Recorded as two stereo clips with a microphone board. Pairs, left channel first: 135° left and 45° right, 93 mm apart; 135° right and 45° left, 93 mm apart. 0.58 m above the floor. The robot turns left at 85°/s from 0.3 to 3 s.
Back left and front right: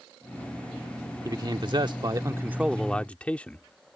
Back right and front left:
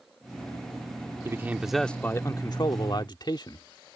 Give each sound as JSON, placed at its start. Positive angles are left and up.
{"t": 1.2, "sound": "a man speaking", "azimuth_deg": -5}